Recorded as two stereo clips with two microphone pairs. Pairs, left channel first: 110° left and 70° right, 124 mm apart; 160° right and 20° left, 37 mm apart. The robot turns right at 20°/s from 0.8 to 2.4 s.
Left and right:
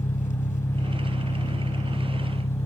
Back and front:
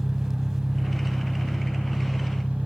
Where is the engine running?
110° left, 1.1 m; by 2.7 s 145° left, 1.1 m.